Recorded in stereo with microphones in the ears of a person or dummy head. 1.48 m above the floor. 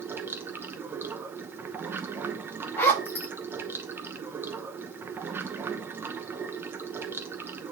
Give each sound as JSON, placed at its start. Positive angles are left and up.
{"t": 0.0, "sound": "running water", "side_deg": -10, "distance_m": 0.9}
{"t": 2.8, "sound": "a zipper", "side_deg": 10, "distance_m": 2.0}